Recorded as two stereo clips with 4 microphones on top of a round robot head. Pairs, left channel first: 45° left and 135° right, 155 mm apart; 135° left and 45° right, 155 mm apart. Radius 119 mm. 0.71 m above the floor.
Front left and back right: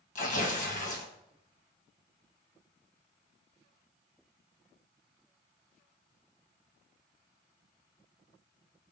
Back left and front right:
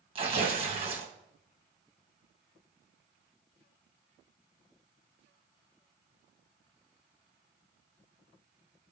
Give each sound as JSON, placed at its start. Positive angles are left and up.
{"t": 0.1, "sound": "tearing paper", "azimuth_deg": 5, "distance_m": 1.7}